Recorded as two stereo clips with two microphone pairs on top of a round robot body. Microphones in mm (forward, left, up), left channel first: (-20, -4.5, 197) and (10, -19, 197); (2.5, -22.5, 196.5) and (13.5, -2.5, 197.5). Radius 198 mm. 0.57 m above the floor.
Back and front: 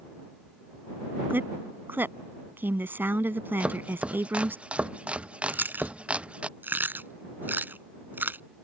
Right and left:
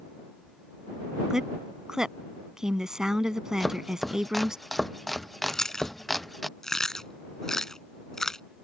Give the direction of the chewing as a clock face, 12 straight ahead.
2 o'clock.